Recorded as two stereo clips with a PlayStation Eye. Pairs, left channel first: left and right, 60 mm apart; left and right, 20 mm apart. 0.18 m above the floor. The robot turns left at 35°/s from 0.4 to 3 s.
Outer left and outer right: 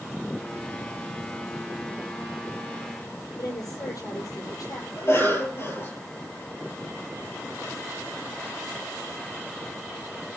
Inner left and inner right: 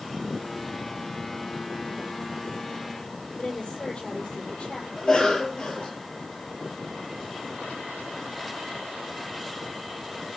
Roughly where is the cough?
Left.